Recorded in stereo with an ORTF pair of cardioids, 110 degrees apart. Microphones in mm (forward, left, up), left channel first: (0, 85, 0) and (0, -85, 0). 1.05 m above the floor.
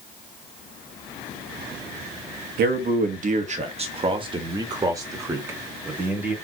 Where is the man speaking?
65° right, 1.2 m; by 6.3 s 5° right, 2.5 m.